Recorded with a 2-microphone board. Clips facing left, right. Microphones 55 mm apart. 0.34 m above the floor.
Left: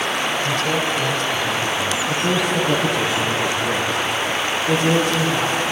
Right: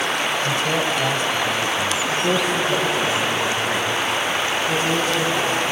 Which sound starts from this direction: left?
A man speaking, at 2.1 s.